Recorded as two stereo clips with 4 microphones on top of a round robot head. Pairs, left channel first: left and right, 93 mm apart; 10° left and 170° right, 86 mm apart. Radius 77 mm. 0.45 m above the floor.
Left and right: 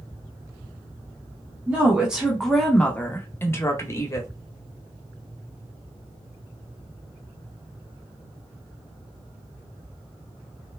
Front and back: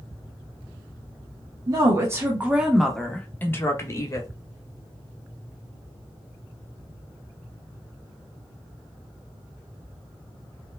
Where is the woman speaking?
155° right, 1.0 m; by 4.3 s 45° left, 1.2 m.